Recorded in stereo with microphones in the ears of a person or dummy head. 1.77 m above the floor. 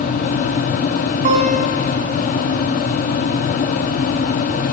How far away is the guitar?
About 5 m.